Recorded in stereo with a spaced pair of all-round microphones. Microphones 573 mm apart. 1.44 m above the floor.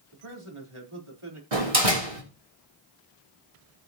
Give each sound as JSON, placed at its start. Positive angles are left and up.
{"t": 0.1, "sound": "a man speaking", "side_deg": -60, "distance_m": 3.5}
{"t": 1.5, "sound": "a door slam", "side_deg": -70, "distance_m": 3.0}